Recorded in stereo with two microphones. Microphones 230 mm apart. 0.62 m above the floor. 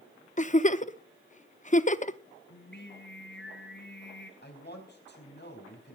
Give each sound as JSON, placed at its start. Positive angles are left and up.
{"t": 0.4, "sound": "a giggle", "side_deg": 35, "distance_m": 0.6}
{"t": 2.5, "sound": "singing", "side_deg": 50, "distance_m": 2.0}
{"t": 4.4, "sound": "a man speaking", "side_deg": 45, "distance_m": 4.5}